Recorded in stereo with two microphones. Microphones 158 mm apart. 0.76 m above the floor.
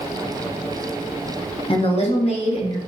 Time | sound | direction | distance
1.7 | a woman speaking | 35° left (ahead or behind) | 0.7 m